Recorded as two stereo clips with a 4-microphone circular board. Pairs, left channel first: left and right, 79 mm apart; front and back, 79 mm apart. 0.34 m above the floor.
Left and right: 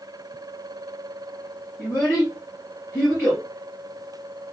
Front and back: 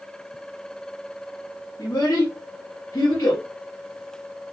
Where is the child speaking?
25° left, 3 m.